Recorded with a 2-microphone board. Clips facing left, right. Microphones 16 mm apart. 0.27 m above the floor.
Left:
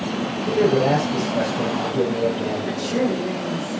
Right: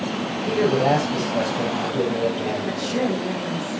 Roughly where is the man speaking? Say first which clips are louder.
Left 1 dB; centre.